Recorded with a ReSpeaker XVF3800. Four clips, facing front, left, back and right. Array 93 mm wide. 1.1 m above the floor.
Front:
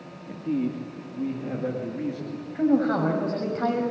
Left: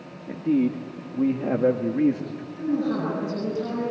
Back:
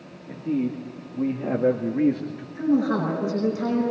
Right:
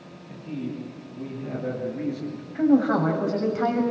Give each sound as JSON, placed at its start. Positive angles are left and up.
{"t": 0.3, "sound": "a man speaking", "azimuth_deg": 90, "distance_m": 2.0}
{"t": 2.5, "sound": "a woman speaking", "azimuth_deg": -55, "distance_m": 6.0}